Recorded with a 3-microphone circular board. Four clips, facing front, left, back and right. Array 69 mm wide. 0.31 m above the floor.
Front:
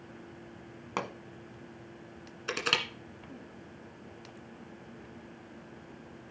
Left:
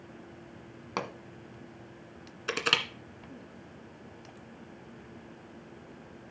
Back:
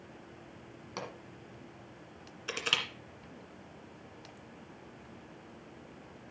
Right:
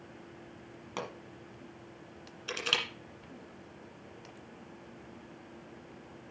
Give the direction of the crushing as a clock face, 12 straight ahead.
10 o'clock.